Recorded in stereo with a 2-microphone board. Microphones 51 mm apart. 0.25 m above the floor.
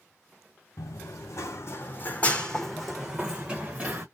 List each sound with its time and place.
0.8 s running footsteps: 80° left, 1.0 m; by 4.0 s 30° right (ahead or behind), 1.3 m